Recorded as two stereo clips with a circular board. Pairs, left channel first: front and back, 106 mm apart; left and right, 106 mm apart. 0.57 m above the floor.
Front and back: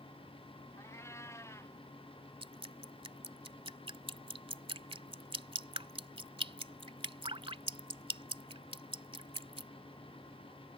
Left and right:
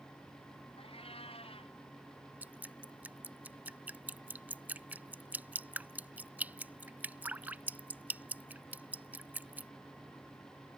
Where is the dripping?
160° right.